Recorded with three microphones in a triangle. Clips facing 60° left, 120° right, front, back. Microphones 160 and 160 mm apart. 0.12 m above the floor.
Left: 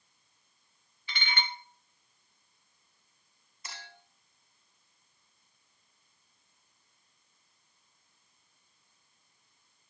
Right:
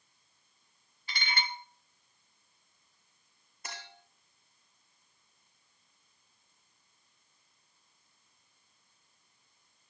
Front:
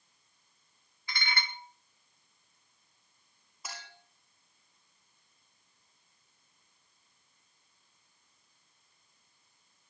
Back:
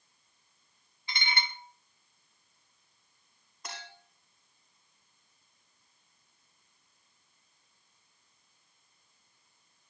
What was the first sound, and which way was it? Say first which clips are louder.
Dishes clattering: even, back 1 dB; 130° right.